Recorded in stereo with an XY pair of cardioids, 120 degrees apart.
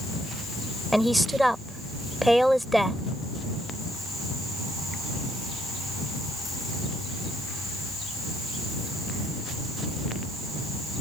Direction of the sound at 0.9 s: 5° right.